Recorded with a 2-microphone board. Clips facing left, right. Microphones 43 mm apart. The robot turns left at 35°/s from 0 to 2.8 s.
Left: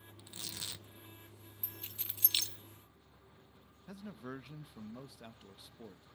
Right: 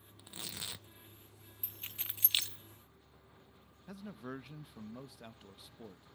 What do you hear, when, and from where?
0.2 s tearing paper: 25° right (ahead or behind), 0.8 m; by 0.9 s 15° right (ahead or behind), 0.8 m
1.6 s keys jangling: 55° right (ahead or behind), 0.6 m; by 2.6 s 25° right (ahead or behind), 0.6 m
3.9 s a man speaking: 5° right (ahead or behind), 0.5 m